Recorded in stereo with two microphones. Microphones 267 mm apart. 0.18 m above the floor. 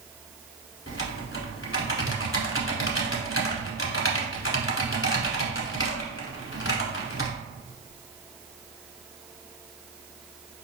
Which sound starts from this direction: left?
Typing on a keyboard, at 0.9 s.